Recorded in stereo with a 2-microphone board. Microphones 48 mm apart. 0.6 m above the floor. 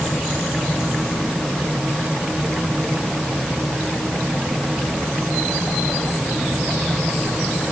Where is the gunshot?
I don't hear a gunshot.